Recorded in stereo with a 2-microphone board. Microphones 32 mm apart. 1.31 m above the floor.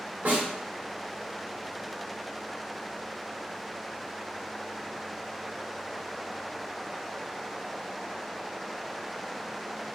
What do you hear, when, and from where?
0.2 s a snare drum: 70° right (ahead or behind), 2 m